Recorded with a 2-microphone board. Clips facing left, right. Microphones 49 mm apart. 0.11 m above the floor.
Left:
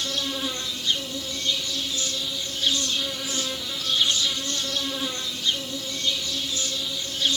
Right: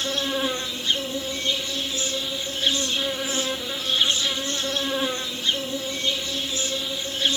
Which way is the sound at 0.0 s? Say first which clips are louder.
Right 4 dB; 25° right (ahead or behind).